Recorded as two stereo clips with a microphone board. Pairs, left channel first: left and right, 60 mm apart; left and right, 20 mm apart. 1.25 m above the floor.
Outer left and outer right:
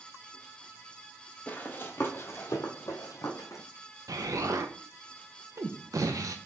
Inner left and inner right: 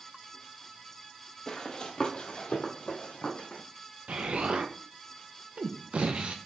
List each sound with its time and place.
1.5 s running footsteps: 30° left (ahead or behind), 1.5 m; by 3.6 s 60° left (ahead or behind), 2.5 m
4.1 s an explosion: 70° right (ahead or behind), 0.9 m